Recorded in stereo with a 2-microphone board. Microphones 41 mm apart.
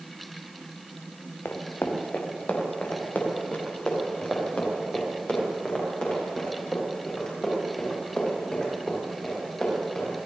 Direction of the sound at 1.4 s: 60° left (ahead or behind).